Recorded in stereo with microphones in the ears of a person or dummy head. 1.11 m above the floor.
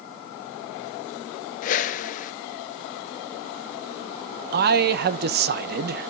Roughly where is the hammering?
No hammering in this recording.